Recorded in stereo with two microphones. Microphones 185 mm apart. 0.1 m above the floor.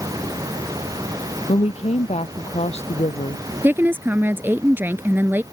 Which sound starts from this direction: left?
A woman speaking, at 1.5 s.